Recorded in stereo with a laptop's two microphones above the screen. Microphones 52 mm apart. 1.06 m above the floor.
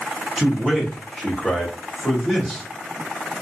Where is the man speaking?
5° right (ahead or behind), 1.1 m.